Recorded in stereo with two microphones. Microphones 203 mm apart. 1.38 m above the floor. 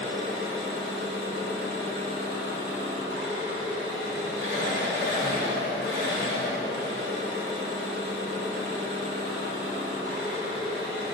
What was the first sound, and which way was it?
An engine running, 75° right (ahead or behind).